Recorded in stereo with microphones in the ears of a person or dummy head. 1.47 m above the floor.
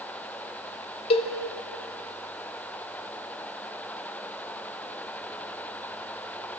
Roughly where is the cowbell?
Left.